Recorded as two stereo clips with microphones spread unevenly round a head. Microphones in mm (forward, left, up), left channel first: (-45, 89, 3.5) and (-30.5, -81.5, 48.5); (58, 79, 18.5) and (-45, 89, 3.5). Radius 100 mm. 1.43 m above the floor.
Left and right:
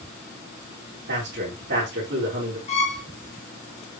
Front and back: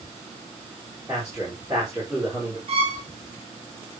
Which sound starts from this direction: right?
A man speaking, at 1.1 s.